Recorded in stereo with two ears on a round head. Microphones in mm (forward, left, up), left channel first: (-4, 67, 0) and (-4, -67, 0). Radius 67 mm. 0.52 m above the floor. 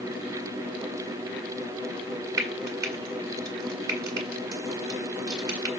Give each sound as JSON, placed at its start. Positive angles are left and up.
{"t": 2.4, "sound": "frying", "side_deg": -25, "distance_m": 1.7}